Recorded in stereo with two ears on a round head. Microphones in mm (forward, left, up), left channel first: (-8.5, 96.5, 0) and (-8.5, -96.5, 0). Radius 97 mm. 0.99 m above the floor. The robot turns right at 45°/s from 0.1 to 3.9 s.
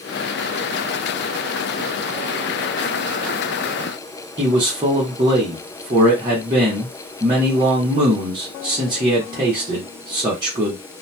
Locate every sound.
4.4 s a man speaking: 20° right (ahead or behind), 0.9 m